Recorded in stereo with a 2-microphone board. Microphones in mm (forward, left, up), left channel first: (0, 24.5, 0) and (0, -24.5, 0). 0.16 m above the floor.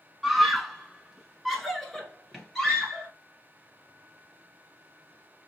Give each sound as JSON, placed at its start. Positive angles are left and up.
{"t": 0.2, "sound": "a scream", "side_deg": -5, "distance_m": 1.1}